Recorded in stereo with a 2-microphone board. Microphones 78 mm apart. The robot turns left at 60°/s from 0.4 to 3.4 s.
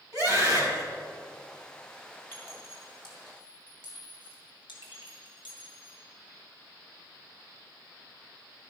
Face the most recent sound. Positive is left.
turn(degrees=80)